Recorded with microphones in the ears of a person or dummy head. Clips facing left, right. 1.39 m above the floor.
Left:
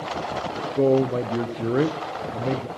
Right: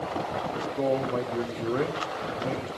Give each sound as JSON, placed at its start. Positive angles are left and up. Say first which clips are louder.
{"t": 0.8, "sound": "a man speaking", "louder": "left 8 dB", "side_deg": 35, "distance_m": 0.6}